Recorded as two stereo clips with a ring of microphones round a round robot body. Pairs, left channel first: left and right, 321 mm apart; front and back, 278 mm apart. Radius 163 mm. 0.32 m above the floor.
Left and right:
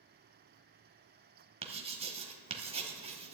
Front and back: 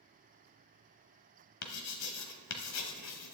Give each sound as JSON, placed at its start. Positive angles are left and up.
{"t": 1.6, "sound": "writing", "azimuth_deg": -20, "distance_m": 1.0}